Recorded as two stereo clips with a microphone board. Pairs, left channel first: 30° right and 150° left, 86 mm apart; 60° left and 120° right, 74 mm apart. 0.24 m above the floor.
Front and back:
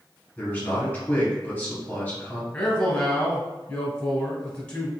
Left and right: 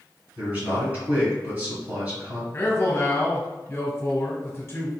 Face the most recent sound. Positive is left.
turn(degrees=30)